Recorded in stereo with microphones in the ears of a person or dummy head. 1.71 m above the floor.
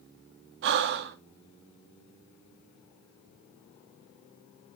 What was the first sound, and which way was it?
Breathing, 55° right (ahead or behind).